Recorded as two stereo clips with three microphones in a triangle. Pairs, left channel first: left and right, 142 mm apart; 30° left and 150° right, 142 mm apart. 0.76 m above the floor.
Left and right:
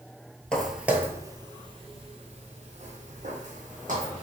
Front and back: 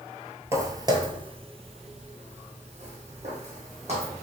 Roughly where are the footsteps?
Behind.